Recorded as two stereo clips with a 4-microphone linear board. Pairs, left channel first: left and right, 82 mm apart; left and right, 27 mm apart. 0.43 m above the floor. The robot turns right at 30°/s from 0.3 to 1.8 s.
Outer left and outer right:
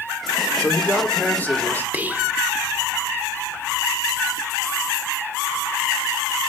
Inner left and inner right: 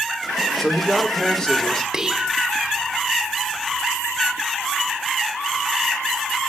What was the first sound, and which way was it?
A man speaking, 25° left (ahead or behind).